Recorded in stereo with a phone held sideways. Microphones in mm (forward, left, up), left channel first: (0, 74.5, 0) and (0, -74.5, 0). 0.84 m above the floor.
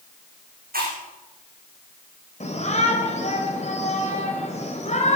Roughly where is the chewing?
Right.